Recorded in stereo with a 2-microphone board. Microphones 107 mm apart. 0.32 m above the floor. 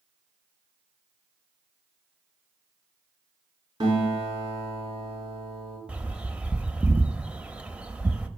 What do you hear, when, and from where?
3.8 s a guitar: 40° right (ahead or behind), 4.5 m
5.9 s a bird: 10° right (ahead or behind), 0.5 m